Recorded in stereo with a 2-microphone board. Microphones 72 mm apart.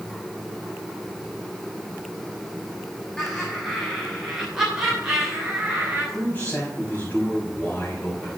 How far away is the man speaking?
About 4 m.